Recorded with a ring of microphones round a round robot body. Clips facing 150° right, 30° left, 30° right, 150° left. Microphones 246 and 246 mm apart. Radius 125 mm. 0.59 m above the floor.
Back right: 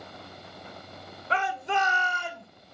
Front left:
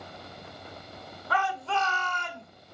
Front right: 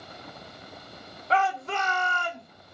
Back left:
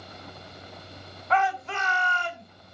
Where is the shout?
85° right, 2.0 m; by 2.5 s 65° right, 2.0 m.